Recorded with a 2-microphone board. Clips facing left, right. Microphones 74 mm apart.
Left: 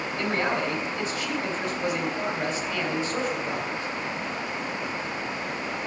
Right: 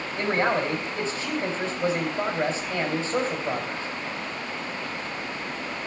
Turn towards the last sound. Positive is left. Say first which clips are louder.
# right 3 dB
turn(degrees=-35)  # may be behind; listen again after turning